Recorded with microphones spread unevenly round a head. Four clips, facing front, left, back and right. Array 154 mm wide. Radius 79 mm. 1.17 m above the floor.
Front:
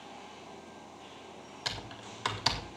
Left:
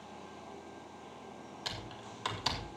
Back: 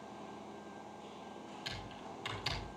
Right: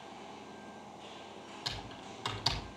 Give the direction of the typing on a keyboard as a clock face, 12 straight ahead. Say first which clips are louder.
Even, front 4 dB; 11 o'clock.